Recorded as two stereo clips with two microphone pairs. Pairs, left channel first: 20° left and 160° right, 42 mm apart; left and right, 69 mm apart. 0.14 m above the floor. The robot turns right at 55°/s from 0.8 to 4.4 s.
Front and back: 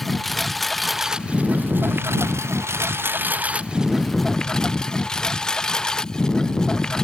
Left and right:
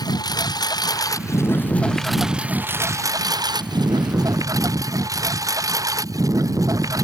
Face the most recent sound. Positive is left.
turn(degrees=-50)